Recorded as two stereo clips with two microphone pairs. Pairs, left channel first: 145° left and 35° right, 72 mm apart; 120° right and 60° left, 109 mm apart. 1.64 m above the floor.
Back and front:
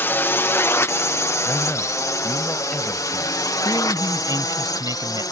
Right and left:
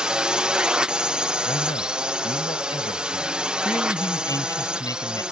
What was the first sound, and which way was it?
A drone, 135° left.